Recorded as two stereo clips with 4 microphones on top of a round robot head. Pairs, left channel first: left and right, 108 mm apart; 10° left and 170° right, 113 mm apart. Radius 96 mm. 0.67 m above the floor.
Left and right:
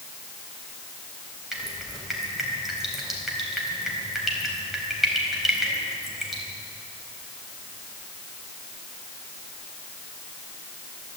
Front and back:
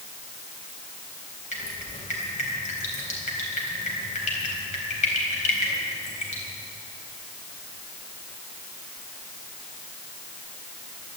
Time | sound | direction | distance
1.5 | dripping | straight ahead | 4 m